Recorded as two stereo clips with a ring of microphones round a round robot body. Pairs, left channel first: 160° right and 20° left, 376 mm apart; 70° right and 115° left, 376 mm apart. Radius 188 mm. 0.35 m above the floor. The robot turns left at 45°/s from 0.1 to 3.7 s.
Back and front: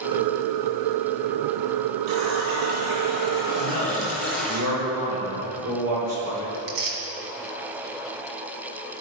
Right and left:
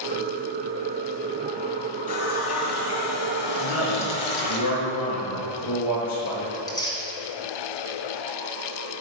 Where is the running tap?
Straight ahead, 2.5 m; by 4.6 s 70° right, 2.5 m.